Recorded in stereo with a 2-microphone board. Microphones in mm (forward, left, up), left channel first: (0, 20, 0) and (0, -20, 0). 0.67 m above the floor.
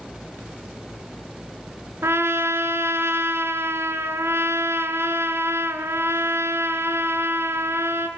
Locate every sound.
2.0 s a trumpet: 90° right, 3.5 m